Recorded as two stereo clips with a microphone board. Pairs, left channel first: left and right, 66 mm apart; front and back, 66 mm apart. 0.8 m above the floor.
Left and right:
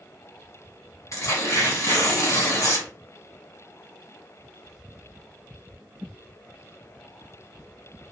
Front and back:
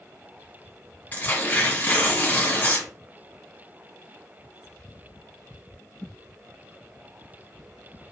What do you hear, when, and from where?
1.1 s tearing paper: 65° left, 1.5 m